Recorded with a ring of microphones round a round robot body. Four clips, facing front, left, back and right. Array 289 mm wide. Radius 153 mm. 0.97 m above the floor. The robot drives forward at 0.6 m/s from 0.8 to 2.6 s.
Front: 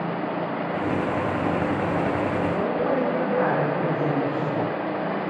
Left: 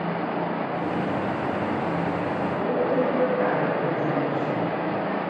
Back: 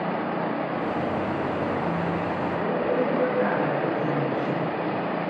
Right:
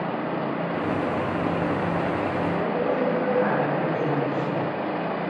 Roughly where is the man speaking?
Ahead.